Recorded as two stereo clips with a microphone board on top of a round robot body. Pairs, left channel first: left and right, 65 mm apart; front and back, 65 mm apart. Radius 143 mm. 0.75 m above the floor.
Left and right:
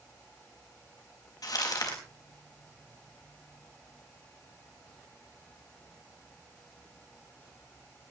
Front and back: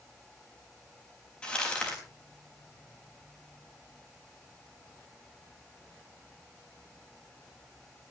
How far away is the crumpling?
About 4.5 m.